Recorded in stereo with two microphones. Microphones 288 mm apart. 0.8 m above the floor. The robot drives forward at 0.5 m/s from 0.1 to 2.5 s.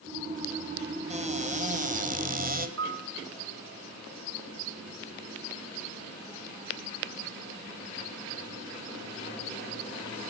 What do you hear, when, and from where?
1.1 s a cupboard door: 20° right (ahead or behind), 3 m; by 2.7 s 30° right (ahead or behind), 2.5 m
2.8 s a piano: 45° right (ahead or behind), 1.8 m